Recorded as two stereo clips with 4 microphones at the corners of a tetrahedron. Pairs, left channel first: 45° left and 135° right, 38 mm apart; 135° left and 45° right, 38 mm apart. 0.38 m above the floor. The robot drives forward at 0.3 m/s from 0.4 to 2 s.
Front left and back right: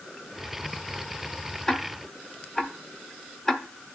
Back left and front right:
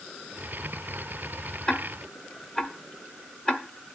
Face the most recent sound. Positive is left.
turn(degrees=110)